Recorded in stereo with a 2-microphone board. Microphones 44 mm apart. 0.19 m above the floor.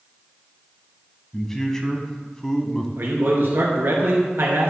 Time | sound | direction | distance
1.3 | a man speaking | 15° left (ahead or behind) | 1.2 m
3.0 | a man speaking | 60° right (ahead or behind) | 3 m